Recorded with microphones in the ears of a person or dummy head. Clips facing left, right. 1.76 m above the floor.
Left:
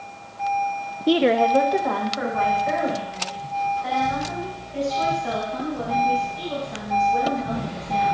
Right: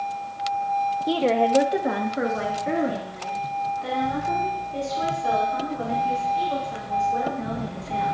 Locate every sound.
1.1 s a woman speaking: 40° left (ahead or behind), 0.6 m; by 8.2 s 55° right (ahead or behind), 8.5 m